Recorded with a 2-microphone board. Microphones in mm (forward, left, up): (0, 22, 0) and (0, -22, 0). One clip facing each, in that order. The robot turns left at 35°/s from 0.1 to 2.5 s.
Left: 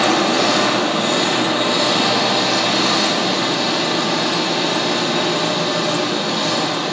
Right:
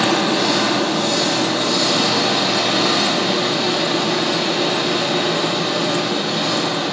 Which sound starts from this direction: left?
An engine running, at 0.0 s.